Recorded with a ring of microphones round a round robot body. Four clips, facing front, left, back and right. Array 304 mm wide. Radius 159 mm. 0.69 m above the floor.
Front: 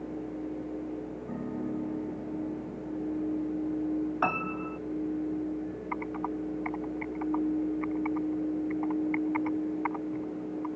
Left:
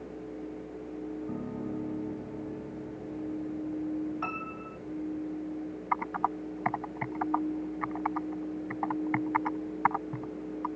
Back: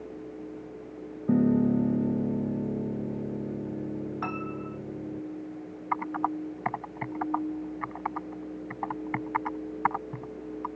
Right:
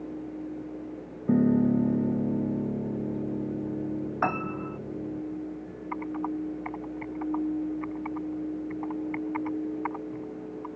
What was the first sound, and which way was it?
A piano, 130° right.